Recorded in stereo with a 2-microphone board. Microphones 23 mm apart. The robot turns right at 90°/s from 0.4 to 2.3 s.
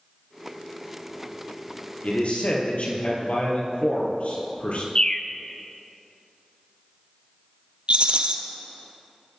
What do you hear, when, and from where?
2.0 s a man speaking: 65° left (ahead or behind), 3 m
5.0 s a bird: 35° left (ahead or behind), 0.8 m
7.9 s a rattle: 55° right (ahead or behind), 1.1 m